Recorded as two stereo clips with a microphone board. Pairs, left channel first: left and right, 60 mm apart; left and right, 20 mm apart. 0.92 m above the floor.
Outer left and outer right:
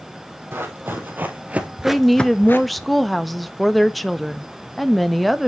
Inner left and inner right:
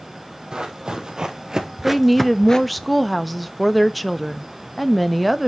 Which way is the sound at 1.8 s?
Centre (ahead or behind).